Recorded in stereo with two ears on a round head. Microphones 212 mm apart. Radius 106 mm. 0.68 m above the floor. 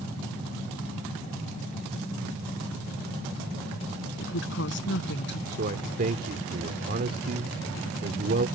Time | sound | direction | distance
4.2 | a woman speaking | 55° left (ahead or behind) | ?
5.5 | a man speaking | 40° right (ahead or behind) | ?